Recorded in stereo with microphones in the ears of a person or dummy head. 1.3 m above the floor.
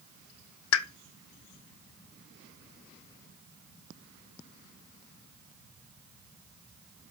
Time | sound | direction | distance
0.7 | a pop | 80° left | 0.7 m